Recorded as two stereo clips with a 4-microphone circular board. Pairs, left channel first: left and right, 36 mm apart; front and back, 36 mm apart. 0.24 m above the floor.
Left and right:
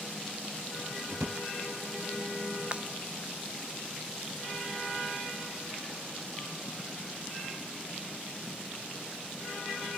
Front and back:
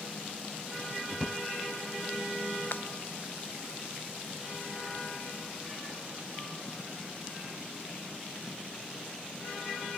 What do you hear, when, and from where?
1.1 s a drawer: 80° right
2.7 s breaking glass: 30° right